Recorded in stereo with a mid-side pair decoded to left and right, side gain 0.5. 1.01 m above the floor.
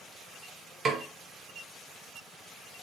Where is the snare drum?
50° right, 2 m.